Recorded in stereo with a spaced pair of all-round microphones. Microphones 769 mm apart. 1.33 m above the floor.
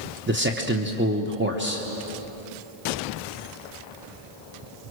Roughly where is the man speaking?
Centre.